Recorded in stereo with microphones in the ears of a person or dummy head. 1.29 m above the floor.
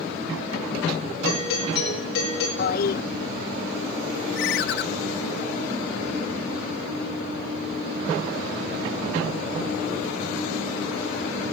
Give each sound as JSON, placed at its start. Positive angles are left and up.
{"t": 1.2, "sound": "a doorbell", "side_deg": 65, "distance_m": 7.0}
{"t": 2.6, "sound": "a toilet flushing", "side_deg": 50, "distance_m": 0.6}
{"t": 4.3, "sound": "a ringtone", "side_deg": 65, "distance_m": 0.8}